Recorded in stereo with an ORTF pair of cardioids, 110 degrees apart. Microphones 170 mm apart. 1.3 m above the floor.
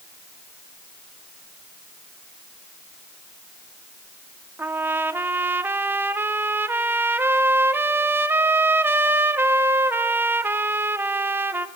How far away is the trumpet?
About 1.5 m.